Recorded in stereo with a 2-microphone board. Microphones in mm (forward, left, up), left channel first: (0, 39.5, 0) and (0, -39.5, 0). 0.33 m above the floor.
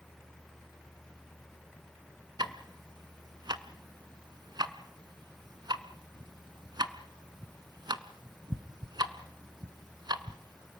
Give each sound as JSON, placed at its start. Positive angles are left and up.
{"t": 2.4, "sound": "ticking", "side_deg": -70, "distance_m": 1.2}